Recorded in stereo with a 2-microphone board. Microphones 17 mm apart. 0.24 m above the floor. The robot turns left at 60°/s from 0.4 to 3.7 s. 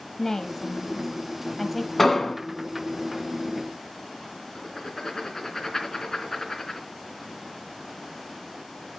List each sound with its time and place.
0.2 s a woman speaking: 25° left (ahead or behind), 1.6 m; by 1.9 s centre (ahead or behind), 1.6 m
2.0 s an explosion: 20° left (ahead or behind), 2 m; by 2.4 s 40° left (ahead or behind), 2 m
4.5 s writing: 15° left (ahead or behind), 3.5 m